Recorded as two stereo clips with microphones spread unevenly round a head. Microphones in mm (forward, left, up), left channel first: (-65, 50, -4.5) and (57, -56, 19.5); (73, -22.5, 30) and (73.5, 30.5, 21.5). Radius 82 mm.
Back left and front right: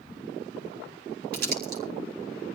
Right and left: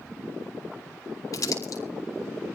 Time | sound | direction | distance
1.3 | crumpling | 75° right | 5 m